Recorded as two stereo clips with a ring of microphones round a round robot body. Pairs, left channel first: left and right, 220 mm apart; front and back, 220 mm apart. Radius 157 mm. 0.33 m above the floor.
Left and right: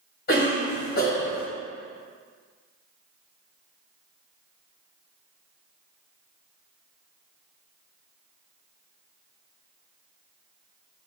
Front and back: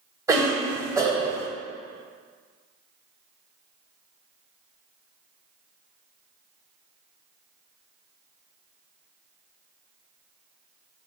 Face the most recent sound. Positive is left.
turn(degrees=110)